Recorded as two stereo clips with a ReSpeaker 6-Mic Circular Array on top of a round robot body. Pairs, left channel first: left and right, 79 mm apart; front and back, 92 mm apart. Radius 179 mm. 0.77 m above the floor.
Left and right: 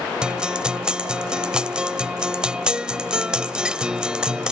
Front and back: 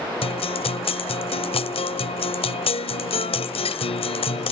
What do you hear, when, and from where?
0.2 s a guitar: 10° right